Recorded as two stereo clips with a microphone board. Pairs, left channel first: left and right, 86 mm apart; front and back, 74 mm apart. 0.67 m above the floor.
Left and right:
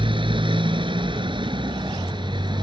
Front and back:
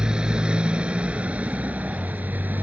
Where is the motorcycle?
100° right; by 2.6 s 115° right.